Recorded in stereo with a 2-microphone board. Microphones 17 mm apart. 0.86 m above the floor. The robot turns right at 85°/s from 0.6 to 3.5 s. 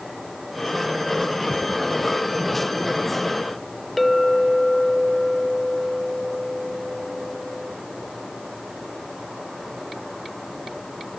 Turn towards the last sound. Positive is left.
turn(degrees=0)  # may be behind; listen again after turning